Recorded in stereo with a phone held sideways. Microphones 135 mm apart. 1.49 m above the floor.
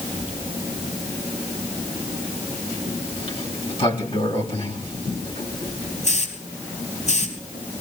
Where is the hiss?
60° left (ahead or behind), 3.5 m.